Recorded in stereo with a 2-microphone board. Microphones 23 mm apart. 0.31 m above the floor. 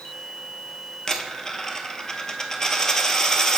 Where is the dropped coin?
25° left (ahead or behind), 0.7 m.